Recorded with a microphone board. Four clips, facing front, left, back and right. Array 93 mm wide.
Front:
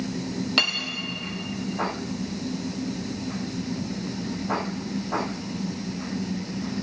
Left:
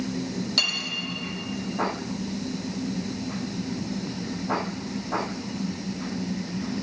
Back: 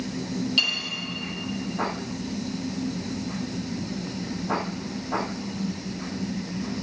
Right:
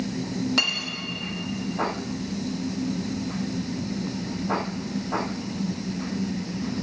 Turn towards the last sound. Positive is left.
turn(degrees=-25)